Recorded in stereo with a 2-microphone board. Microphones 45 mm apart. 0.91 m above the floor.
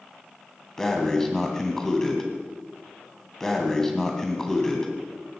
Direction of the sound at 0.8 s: 10° left (ahead or behind).